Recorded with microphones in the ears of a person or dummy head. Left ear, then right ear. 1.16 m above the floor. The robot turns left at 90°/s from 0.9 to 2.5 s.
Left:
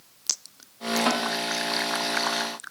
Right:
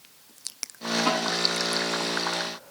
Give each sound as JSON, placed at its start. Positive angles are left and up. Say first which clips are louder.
{"t": 1.1, "sound": "a snare drum", "louder": "even", "side_deg": 60, "distance_m": 5.5}